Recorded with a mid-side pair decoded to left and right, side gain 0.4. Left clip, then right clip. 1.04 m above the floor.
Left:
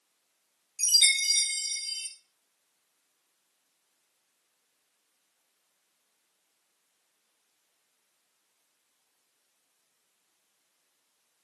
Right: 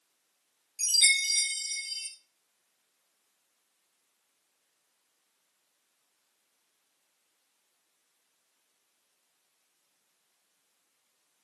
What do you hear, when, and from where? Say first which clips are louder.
0.8 s a chime: left 1 dB; 20° left, 3.5 m